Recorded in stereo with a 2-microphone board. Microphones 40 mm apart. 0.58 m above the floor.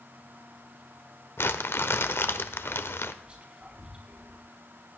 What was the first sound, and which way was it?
Crumpling, 70° left (ahead or behind).